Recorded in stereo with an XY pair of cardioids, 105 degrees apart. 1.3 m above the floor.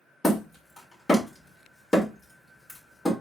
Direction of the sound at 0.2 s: 20° left.